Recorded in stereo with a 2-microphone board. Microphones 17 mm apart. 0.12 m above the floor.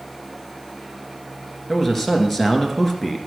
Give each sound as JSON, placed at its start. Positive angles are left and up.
{"t": 1.7, "sound": "a man speaking", "side_deg": 10, "distance_m": 1.8}